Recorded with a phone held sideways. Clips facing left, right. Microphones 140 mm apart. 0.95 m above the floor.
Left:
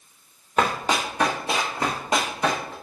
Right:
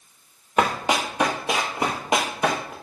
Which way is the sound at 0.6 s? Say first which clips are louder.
Right 1 dB; 15° right (ahead or behind).